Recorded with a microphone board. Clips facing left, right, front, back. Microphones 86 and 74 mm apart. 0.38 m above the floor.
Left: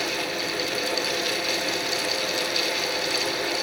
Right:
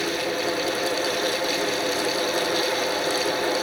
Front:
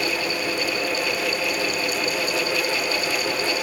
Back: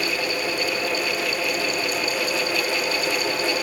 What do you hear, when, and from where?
Only background noise.